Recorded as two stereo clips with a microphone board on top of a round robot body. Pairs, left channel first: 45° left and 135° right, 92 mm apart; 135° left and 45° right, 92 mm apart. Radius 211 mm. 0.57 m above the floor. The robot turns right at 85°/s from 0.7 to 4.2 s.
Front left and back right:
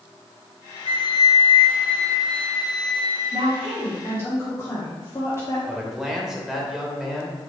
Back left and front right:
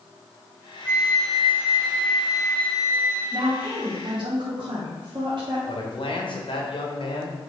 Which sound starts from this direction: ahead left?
A flute, at 0.8 s.